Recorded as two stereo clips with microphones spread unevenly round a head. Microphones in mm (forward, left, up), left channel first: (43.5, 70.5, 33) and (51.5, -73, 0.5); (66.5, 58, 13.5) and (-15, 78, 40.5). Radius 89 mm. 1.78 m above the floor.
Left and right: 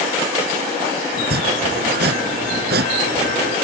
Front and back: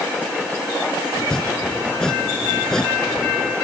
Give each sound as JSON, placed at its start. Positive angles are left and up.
{"t": 1.1, "sound": "chopping", "azimuth_deg": -100}